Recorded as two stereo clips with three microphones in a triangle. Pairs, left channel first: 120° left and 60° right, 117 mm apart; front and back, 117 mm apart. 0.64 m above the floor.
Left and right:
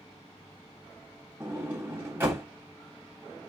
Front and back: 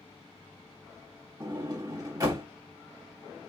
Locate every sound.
1.4 s a sliding door: 125° right, 1.4 m